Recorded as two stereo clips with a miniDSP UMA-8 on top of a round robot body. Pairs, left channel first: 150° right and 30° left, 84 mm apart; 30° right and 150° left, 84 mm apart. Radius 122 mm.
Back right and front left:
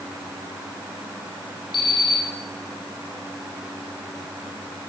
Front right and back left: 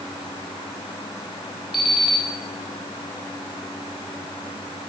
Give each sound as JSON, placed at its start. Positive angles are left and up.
{"t": 1.7, "sound": "an alarm clock", "azimuth_deg": -120, "distance_m": 2.5}